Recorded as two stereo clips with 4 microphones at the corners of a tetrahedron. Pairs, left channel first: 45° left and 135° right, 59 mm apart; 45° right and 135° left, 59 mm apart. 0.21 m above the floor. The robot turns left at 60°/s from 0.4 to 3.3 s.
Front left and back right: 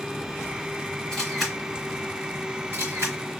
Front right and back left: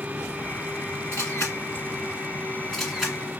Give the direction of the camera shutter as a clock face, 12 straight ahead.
1 o'clock.